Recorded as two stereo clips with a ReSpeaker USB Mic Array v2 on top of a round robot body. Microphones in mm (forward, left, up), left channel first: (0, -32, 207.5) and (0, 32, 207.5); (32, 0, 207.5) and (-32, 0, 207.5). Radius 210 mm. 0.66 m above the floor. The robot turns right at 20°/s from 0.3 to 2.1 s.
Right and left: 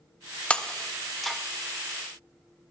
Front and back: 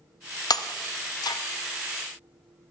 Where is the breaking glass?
15° right, 0.5 m; by 1.4 s straight ahead, 0.5 m.